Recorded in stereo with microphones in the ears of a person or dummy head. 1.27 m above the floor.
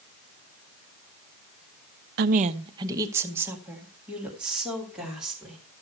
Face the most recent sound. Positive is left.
turn(degrees=0)  # may be behind; listen again after turning